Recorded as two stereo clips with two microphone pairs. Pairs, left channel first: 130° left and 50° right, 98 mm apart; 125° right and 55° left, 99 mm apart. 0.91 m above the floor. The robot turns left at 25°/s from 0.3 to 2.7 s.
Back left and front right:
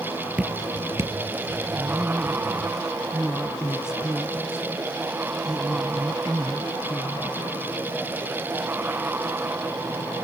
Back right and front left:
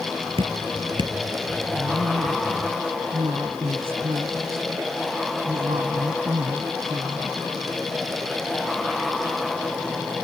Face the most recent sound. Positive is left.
turn(degrees=35)